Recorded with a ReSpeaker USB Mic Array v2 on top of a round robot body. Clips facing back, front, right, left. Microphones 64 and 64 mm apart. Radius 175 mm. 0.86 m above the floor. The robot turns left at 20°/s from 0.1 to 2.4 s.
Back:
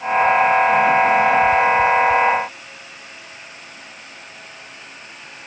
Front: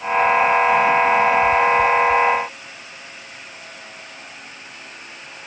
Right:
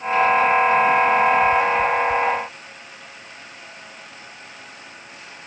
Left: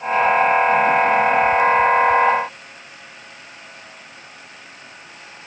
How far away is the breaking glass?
No breaking glass in this recording.